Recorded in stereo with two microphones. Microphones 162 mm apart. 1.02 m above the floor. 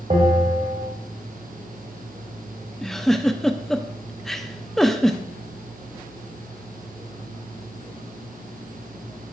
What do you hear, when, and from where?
0.1 s a bell: 35° right (ahead or behind), 1.9 m
2.8 s a giggle: centre (ahead or behind), 0.6 m